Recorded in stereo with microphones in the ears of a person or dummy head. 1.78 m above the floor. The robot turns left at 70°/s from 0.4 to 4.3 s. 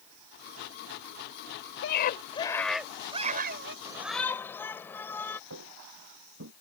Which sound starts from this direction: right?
Footsteps, at 5.5 s.